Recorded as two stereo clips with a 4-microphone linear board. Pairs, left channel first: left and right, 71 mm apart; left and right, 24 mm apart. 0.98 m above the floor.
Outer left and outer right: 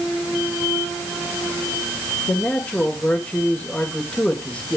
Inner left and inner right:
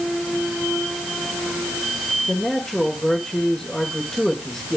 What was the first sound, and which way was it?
A man speaking, 20° left (ahead or behind).